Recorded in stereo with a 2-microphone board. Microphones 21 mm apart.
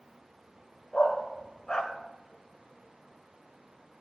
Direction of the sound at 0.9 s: 40° left (ahead or behind).